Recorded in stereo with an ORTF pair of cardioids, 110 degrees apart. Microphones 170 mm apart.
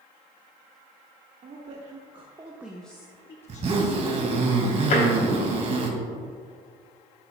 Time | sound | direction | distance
1.4 | a woman speaking | 50° right | 1.6 m
3.5 | a zipper | 40° right | 2 m
4.9 | tapping | 50° left | 3 m